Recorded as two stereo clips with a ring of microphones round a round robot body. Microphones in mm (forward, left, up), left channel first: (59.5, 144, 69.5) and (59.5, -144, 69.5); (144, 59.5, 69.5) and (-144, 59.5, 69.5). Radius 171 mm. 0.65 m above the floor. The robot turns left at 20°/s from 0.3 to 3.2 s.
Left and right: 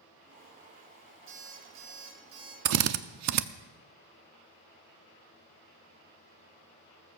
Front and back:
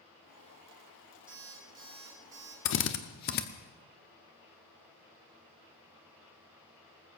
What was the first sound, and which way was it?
An alarm clock, 95° right.